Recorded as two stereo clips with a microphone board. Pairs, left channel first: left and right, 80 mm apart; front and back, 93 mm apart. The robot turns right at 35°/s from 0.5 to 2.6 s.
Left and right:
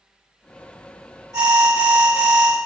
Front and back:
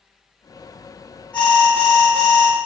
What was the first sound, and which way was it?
An alarm, 65° right.